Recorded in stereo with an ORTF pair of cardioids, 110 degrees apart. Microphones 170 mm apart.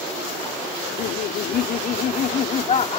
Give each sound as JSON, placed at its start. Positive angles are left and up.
{"t": 0.8, "sound": "laughter", "azimuth_deg": 70}